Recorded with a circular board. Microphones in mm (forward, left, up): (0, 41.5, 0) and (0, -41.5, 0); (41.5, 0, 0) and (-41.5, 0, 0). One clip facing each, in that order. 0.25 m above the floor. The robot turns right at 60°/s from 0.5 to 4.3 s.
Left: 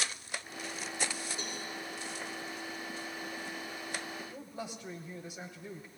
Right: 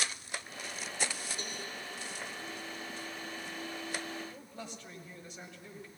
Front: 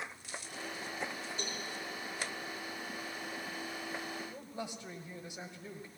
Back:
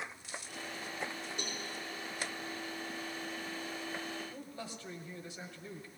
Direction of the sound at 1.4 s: 150° left.